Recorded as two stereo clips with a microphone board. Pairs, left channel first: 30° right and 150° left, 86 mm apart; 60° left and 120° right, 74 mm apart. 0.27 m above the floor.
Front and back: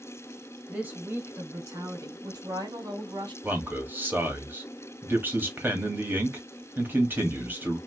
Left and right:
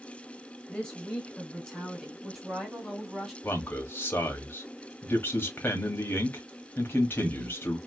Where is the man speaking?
100° left, 1.2 m.